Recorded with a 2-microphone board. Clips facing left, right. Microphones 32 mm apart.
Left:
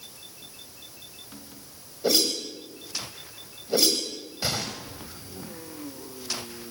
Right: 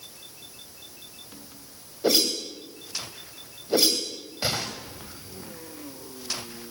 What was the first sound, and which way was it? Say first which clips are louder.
A whoosh: right 1 dB; 25° right (ahead or behind).